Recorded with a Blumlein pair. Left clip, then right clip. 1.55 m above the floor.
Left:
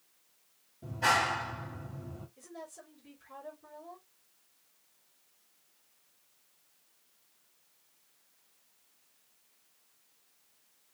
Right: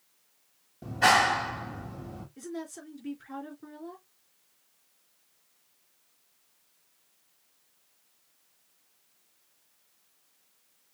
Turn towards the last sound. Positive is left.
turn(degrees=-40)